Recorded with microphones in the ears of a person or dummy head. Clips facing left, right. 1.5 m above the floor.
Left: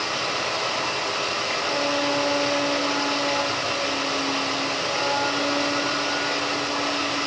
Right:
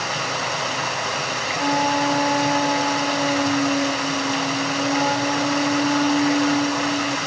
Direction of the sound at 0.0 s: 55° right (ahead or behind).